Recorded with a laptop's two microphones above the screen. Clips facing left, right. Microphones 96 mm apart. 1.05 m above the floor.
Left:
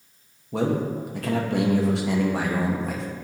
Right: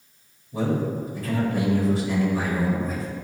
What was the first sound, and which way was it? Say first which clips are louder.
A man speaking: left 1 dB; 75° left (ahead or behind).